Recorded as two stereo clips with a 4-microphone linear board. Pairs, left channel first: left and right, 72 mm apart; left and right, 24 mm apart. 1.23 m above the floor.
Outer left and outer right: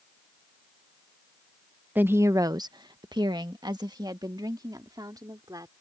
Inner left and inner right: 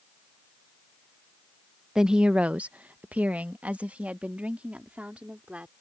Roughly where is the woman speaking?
Right.